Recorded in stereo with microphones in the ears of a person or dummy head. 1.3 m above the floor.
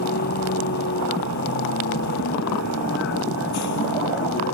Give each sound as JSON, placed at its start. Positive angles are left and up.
{"t": 0.0, "sound": "a vehicle", "side_deg": 55}